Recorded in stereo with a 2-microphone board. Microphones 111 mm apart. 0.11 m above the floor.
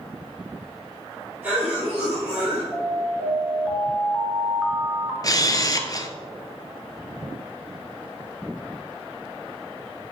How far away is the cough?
About 2 m.